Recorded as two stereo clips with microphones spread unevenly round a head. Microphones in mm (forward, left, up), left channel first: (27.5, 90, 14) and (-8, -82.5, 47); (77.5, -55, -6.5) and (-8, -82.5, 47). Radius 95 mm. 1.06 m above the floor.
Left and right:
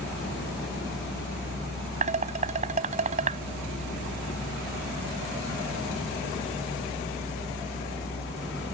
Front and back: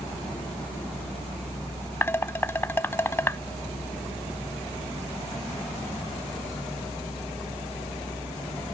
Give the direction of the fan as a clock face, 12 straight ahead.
9 o'clock.